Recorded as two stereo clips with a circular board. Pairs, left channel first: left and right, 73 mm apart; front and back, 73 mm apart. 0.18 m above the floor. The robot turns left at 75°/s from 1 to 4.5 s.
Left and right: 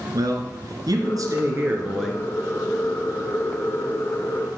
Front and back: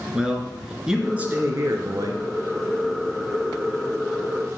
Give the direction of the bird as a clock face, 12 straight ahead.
I don't hear a bird.